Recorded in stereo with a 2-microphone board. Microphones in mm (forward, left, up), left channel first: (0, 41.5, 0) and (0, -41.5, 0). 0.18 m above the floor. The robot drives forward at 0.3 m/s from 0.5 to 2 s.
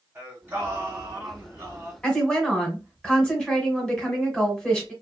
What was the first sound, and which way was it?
Singing, 20° right (ahead or behind).